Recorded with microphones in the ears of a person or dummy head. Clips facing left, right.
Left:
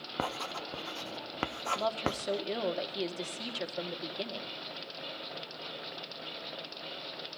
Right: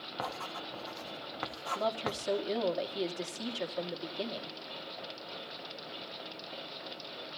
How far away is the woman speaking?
About 1.5 m.